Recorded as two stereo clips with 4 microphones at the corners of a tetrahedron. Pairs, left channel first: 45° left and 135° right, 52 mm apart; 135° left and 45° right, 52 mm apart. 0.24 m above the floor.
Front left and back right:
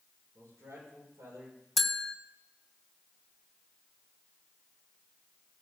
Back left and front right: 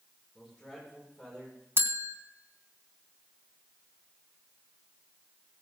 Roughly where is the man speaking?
Behind right.